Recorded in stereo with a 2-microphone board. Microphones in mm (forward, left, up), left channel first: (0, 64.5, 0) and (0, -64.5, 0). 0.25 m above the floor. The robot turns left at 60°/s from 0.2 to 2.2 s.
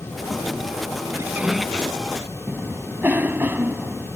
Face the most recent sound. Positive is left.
turn(degrees=-15)  # may be behind; listen again after turning